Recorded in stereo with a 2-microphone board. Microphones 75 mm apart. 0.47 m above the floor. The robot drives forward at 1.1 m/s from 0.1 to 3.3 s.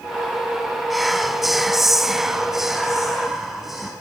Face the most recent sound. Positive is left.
turn(degrees=0)  # may be behind; listen again after turning